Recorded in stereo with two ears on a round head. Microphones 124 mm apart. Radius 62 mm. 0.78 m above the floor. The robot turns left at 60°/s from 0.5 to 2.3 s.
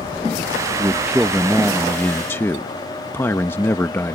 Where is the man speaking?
15° right (ahead or behind); by 4.2 s 15° left (ahead or behind).